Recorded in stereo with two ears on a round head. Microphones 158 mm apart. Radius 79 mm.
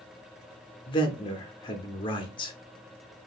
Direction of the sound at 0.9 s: 25° left (ahead or behind).